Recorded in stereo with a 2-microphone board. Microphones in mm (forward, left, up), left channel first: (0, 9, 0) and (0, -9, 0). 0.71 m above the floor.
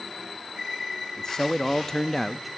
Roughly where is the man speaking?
Left.